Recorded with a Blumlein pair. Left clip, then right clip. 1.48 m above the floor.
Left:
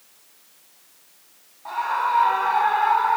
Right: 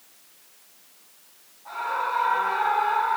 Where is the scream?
60° left, 5 m.